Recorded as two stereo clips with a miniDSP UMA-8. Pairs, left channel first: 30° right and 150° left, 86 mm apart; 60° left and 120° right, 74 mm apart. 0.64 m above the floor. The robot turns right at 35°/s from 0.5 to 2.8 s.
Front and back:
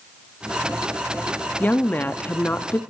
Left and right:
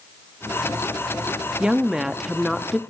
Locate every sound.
1.6 s a woman speaking: 60° right, 0.6 m; by 2.8 s 20° right, 0.6 m